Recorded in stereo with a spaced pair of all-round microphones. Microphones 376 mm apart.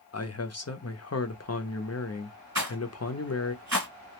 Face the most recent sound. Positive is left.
turn(degrees=-50)  # may be behind; listen again after turning